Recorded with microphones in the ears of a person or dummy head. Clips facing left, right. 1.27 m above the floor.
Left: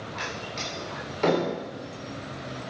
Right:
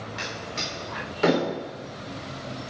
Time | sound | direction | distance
0.2 | a door slam | 10° right (ahead or behind) | 3.5 m